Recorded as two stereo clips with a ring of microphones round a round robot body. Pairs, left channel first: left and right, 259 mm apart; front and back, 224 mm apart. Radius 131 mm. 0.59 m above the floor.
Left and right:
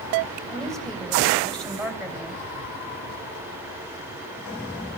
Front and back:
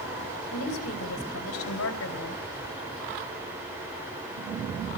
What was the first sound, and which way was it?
A woman speaking, 5° left.